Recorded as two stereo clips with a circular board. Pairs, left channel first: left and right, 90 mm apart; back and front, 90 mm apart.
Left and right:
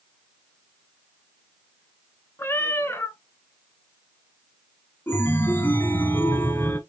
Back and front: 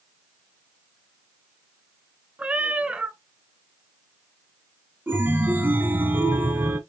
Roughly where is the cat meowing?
Ahead left.